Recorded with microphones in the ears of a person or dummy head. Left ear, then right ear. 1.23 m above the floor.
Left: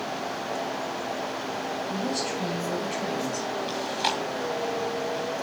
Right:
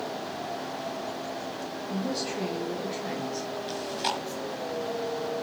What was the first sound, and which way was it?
A woman speaking, 40° left (ahead or behind).